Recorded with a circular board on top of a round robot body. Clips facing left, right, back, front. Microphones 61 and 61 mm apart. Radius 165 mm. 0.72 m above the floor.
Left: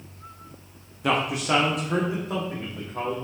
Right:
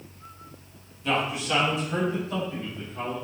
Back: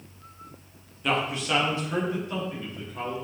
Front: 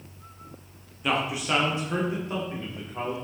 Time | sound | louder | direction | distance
1.0 | a man speaking | left 3 dB, even | 90° left | 1.3 m